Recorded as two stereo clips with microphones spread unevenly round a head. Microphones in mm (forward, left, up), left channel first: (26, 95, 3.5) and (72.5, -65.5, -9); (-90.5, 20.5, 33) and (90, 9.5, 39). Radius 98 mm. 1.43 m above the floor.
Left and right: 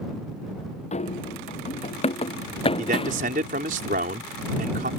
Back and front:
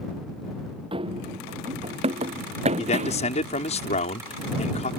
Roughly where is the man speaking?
Behind right.